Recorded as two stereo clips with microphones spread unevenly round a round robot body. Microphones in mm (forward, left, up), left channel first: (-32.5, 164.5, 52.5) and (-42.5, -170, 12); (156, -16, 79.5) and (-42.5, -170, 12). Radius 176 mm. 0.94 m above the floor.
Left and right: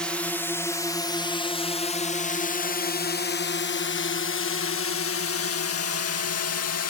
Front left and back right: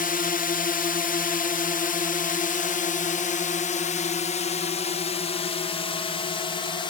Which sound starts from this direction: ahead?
A drone, at 0.0 s.